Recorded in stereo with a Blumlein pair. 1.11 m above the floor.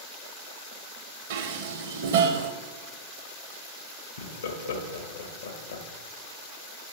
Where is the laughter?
70° left, 1.3 m.